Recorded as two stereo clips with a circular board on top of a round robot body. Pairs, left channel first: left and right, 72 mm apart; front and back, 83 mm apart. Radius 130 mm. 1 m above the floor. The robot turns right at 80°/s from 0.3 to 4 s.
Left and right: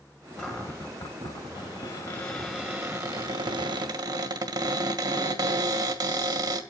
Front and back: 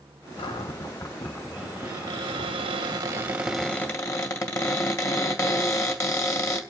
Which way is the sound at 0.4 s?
15° left.